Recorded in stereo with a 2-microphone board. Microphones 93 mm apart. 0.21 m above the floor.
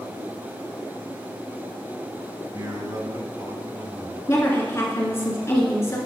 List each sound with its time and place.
2.5 s a man speaking: 45° right (ahead or behind), 1.7 m; by 4.2 s 35° right (ahead or behind), 1.9 m
4.3 s a woman speaking: 30° left (ahead or behind), 2.5 m